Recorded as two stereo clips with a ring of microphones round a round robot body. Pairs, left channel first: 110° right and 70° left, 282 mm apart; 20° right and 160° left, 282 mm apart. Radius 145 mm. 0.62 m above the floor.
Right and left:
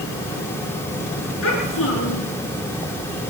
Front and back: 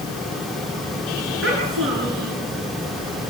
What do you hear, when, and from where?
1.4 s a child speaking: 155° right, 8 m